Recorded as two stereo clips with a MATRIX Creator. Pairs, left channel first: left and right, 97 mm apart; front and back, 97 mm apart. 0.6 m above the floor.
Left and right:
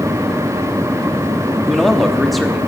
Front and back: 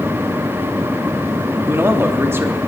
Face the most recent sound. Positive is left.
turn(degrees=180)